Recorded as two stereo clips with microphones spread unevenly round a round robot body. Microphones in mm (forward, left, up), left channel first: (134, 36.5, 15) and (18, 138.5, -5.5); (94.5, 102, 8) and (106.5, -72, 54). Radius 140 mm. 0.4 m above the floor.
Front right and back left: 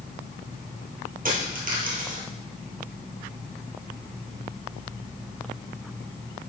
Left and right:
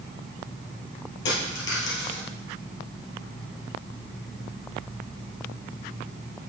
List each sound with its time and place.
1.2 s a dropped coin: 115° left, 3 m